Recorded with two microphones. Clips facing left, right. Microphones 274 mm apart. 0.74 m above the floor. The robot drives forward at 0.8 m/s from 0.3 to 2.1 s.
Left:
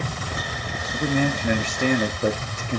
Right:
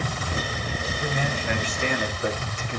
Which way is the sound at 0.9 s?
50° left (ahead or behind).